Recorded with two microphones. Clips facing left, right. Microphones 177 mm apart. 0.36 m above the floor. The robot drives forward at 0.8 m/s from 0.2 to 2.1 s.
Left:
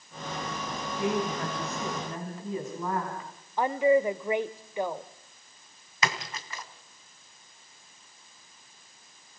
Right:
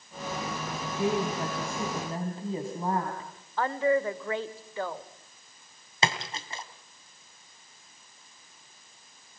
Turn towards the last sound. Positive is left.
turn(degrees=-30)  # may be behind; listen again after turning